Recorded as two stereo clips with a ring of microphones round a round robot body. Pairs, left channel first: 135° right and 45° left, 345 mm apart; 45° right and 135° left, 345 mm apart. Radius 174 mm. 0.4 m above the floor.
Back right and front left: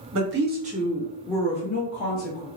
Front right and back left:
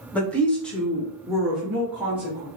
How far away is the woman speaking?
About 1.1 m.